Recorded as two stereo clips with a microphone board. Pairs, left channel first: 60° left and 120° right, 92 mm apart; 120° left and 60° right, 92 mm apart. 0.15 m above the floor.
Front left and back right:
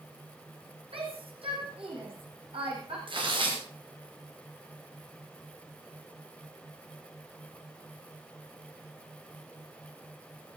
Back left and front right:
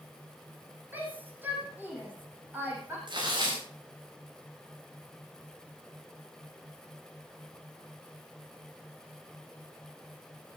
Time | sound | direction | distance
0.9 | a shout | 130° right | 7.5 m
3.1 | tearing paper | 95° right | 8 m